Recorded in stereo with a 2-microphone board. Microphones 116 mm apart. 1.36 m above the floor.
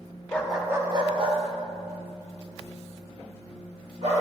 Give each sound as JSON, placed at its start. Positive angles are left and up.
{"t": 0.3, "sound": "a dog barking", "side_deg": 15, "distance_m": 0.9}